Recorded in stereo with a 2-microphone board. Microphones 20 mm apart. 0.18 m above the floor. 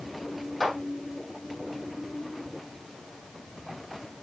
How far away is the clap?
About 5 m.